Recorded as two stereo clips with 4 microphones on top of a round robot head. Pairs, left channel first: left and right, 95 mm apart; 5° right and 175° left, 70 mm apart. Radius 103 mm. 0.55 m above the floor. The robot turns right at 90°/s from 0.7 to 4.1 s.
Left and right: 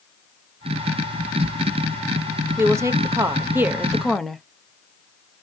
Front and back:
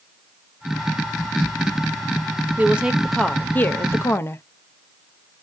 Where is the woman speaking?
135° right, 0.7 m; by 4.4 s 5° left, 0.7 m.